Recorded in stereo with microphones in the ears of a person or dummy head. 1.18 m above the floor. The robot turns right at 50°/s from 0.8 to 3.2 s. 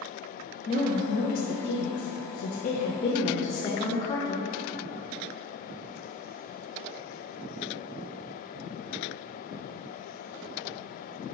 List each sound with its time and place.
0.7 s a woman speaking: 35° left, 0.7 m; by 4.5 s 155° left, 0.7 m